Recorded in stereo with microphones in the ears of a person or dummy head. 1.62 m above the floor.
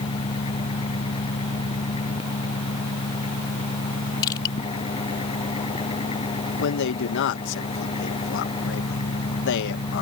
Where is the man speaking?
65° left (ahead or behind).